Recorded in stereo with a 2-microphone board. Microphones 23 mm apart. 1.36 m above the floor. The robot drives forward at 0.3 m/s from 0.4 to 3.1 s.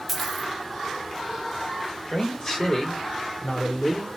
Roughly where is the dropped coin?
Centre.